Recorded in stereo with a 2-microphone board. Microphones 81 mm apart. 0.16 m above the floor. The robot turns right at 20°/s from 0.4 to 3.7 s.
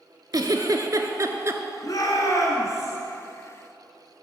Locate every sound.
0.3 s a giggle: 55° right (ahead or behind), 0.8 m; by 1.6 s 35° right (ahead or behind), 0.8 m
1.8 s a shout: 50° left (ahead or behind), 2 m; by 3.0 s 35° left (ahead or behind), 2 m